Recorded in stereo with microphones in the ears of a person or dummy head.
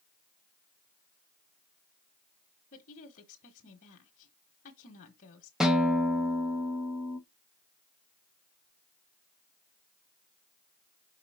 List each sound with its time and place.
2.7 s a woman speaking: 45° left (ahead or behind), 1.2 m
5.6 s a guitar: 5° right (ahead or behind), 0.9 m